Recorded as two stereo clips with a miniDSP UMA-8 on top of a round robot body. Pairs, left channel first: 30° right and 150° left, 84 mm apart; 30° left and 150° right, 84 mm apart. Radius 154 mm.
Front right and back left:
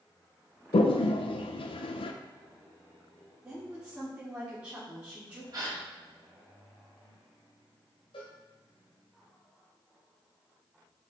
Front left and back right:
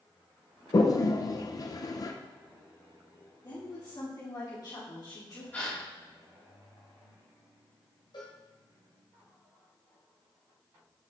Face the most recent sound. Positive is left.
turn(degrees=-5)